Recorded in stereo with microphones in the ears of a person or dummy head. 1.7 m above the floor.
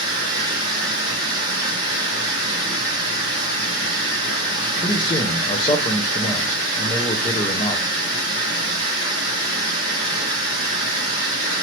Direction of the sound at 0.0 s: 60° left (ahead or behind).